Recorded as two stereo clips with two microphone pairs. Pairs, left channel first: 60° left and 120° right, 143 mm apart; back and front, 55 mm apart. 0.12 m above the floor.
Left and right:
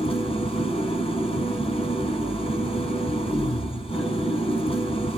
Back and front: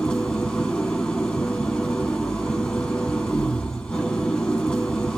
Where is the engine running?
105° left, 1.9 m.